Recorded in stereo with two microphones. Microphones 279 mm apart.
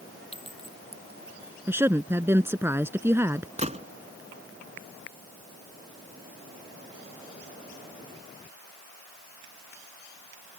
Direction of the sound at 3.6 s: 25° right (ahead or behind).